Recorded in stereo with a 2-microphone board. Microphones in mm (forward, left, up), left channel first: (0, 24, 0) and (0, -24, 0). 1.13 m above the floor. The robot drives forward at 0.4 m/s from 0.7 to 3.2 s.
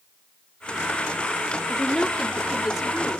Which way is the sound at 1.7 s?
5° right (ahead or behind).